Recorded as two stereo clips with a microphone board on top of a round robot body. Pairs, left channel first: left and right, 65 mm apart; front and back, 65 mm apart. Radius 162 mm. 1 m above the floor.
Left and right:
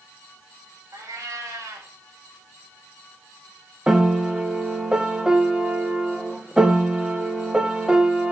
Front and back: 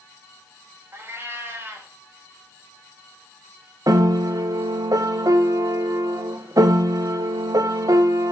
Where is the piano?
165° right, 1.2 m.